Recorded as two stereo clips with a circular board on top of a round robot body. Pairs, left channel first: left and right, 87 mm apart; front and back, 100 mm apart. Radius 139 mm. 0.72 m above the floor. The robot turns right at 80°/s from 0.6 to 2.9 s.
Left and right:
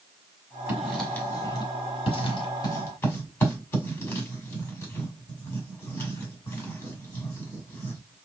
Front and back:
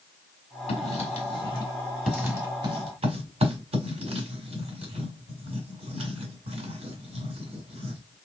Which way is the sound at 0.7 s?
20° right.